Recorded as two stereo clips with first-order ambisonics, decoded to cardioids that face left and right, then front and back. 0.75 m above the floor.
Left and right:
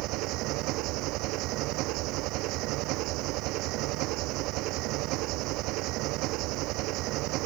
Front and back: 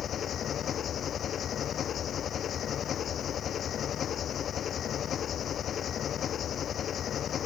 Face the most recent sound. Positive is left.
turn(degrees=-60)